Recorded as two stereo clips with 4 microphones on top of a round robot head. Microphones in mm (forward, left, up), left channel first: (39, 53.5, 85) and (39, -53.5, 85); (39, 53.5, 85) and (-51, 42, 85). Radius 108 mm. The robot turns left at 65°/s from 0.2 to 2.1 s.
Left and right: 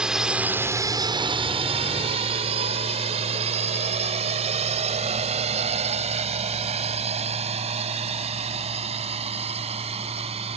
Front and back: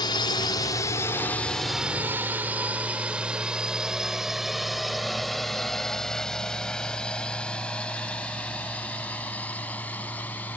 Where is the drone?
10° right; by 10.6 s 65° right.